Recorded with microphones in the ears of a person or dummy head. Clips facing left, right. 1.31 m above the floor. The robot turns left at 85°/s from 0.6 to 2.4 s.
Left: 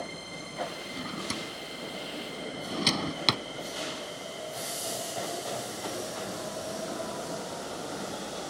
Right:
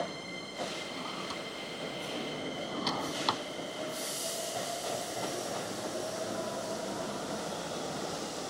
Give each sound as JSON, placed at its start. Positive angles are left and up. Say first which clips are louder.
{"t": 0.9, "sound": "a drawer", "louder": "left 3 dB", "side_deg": 15}